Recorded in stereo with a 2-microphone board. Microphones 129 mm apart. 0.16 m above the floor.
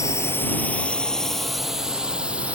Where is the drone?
25° left (ahead or behind); by 2.5 s 10° right (ahead or behind).